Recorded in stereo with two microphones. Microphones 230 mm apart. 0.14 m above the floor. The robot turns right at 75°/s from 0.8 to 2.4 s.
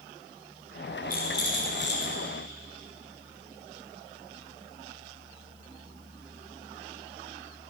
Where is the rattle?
50° left, 2.5 m; by 2.3 s 145° left, 2.5 m.